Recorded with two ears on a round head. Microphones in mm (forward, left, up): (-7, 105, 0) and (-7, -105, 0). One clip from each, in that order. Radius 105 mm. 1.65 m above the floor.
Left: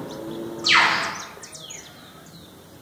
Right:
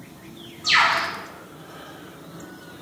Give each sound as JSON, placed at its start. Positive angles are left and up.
{"t": 0.6, "sound": "a bird", "side_deg": 60, "distance_m": 2.5}